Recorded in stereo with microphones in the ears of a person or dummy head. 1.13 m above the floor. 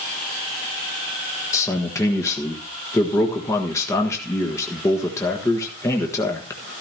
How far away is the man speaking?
About 1.3 m.